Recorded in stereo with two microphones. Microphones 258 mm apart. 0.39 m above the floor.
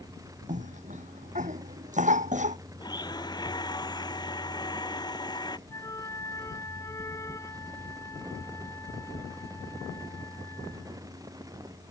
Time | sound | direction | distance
0.5 | a cough | 30° right (ahead or behind) | ?
2.8 | a blender | 15° left (ahead or behind) | ?
5.7 | a flute | 10° left (ahead or behind) | ?